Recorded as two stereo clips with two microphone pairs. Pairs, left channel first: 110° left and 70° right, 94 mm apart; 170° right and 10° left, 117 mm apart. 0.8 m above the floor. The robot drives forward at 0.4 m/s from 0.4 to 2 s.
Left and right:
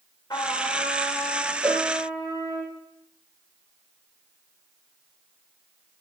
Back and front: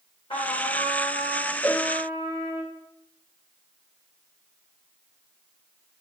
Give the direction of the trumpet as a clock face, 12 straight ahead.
7 o'clock.